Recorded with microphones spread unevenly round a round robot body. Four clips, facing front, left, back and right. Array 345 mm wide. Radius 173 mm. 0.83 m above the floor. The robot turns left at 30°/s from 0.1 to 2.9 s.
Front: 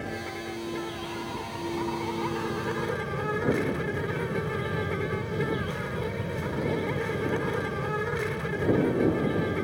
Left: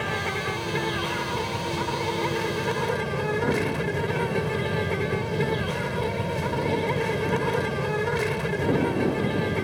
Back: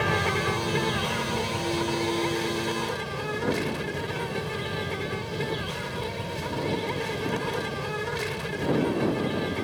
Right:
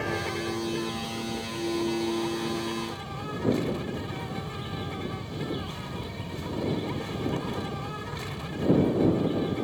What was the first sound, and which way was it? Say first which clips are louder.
An insect: left 2 dB, back 9 dB; 165° left.